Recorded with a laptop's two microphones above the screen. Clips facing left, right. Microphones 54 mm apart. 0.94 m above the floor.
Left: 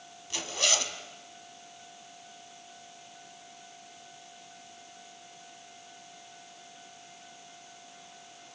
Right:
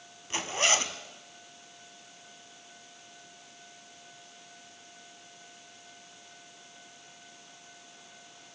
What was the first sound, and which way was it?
A zipper, 30° right (ahead or behind).